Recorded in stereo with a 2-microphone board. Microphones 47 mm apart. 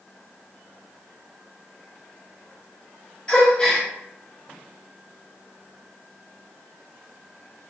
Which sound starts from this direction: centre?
A gasp, at 3.3 s.